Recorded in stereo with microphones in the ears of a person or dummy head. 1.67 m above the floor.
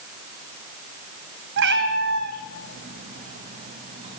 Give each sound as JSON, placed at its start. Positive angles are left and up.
{"t": 1.6, "sound": "a cat meowing", "side_deg": -60, "distance_m": 3.0}